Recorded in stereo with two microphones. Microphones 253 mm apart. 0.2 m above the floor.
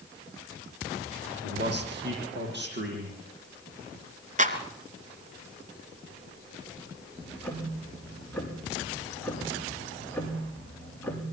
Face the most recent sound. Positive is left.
turn(degrees=5)  # may be behind; listen again after turning